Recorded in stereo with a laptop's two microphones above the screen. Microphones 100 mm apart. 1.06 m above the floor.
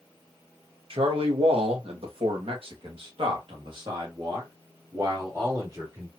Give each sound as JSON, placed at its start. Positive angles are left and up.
{"t": 0.9, "sound": "a man speaking", "side_deg": -65, "distance_m": 1.4}